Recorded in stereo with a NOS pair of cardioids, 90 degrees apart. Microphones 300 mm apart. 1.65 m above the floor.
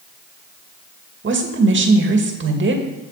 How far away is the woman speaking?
About 2 m.